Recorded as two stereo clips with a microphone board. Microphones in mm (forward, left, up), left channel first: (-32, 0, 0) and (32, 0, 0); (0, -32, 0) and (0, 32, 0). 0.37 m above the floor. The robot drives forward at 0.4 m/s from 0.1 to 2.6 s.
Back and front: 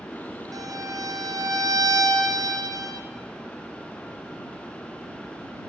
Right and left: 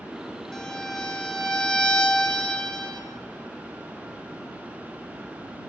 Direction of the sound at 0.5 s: 10° right.